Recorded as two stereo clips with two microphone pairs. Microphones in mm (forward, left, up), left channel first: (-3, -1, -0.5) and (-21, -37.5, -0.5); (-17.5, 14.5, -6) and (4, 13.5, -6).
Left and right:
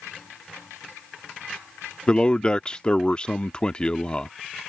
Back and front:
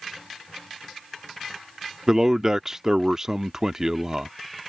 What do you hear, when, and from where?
2.1 s a man speaking: 30° left